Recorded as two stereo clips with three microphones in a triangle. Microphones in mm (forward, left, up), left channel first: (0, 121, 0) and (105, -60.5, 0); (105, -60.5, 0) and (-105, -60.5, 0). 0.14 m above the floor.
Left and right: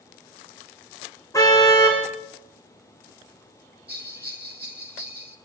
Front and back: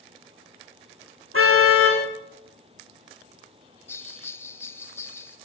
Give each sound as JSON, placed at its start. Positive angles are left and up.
{"t": 1.3, "sound": "a car horn", "azimuth_deg": -165, "distance_m": 6.0}
{"t": 3.9, "sound": "a bell", "azimuth_deg": -75, "distance_m": 1.4}